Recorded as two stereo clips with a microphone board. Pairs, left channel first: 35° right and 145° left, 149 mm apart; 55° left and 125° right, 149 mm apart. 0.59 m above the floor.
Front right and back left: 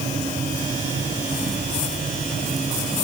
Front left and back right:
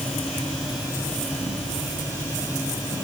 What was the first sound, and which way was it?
Only background noise.